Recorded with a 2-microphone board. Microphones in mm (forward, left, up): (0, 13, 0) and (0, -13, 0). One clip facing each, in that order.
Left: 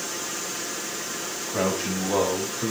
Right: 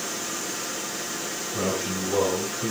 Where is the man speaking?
80° left, 5 m; by 2.7 s 70° left (ahead or behind), 4.5 m.